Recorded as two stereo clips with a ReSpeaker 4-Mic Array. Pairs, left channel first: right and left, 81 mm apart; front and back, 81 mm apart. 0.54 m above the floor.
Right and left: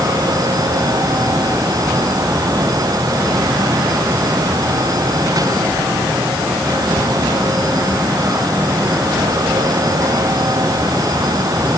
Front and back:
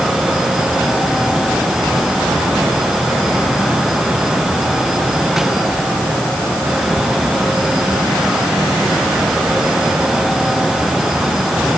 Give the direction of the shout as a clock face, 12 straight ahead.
No shout in this recording.